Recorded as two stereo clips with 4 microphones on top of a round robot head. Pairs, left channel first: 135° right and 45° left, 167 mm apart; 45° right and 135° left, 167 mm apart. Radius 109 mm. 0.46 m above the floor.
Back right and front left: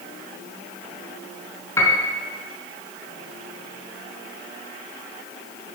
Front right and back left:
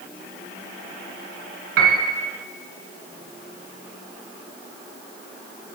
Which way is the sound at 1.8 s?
150° left.